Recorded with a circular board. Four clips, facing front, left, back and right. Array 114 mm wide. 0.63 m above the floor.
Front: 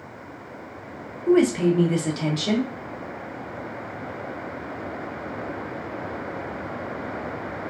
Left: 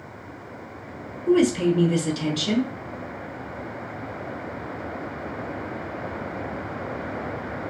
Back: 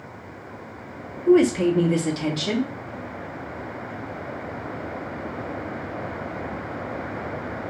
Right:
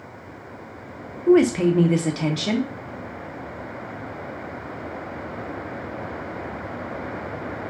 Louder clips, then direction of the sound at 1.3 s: Right 3 dB, back 1 dB; 80° right.